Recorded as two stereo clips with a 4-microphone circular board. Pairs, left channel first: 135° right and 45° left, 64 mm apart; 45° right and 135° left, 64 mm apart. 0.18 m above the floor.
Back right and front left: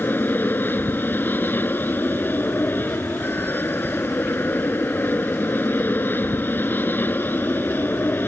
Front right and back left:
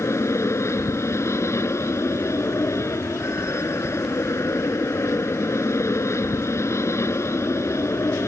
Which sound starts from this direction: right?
An aircraft, at 0.0 s.